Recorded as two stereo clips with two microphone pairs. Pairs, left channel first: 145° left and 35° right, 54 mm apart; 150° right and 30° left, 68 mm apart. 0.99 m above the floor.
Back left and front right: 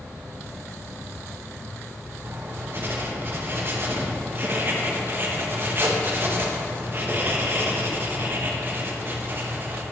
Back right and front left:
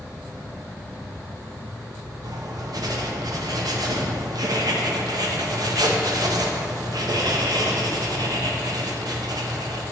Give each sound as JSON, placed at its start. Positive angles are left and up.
{"t": 0.0, "sound": "an insect", "azimuth_deg": 160, "distance_m": 2.0}
{"t": 2.2, "sound": "writing", "azimuth_deg": 15, "distance_m": 0.7}